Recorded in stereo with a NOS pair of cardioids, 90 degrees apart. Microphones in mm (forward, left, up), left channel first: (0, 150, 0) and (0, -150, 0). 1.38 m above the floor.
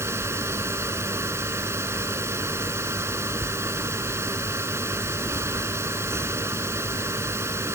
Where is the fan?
10° right.